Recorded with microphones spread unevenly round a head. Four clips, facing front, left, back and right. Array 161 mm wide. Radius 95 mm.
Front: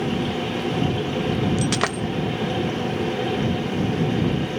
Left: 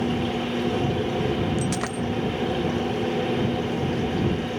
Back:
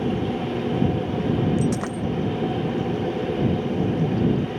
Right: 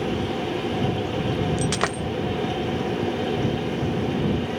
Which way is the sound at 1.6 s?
25° right.